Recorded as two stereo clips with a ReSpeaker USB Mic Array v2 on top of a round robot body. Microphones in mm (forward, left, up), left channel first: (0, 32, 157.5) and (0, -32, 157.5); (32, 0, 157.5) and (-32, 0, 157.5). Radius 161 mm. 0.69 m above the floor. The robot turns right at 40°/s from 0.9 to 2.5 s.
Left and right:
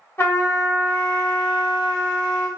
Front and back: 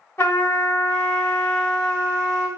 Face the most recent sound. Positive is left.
turn(degrees=105)